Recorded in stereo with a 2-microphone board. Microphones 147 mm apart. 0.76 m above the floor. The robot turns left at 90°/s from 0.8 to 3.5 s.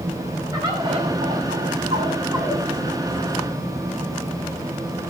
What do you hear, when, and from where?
0.5 s a bird: 25° right, 6.5 m; by 2.6 s 170° left, 6.5 m